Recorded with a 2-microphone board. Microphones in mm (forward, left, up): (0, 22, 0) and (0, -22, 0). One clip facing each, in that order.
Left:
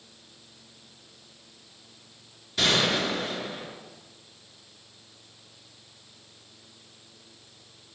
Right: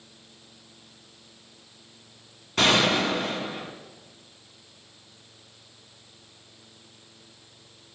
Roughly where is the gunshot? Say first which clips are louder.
Right 3 dB; right.